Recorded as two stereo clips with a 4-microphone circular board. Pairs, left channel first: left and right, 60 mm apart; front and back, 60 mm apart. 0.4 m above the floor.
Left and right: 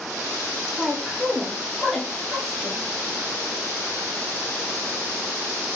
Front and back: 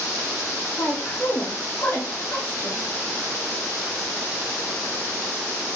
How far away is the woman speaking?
About 1.1 m.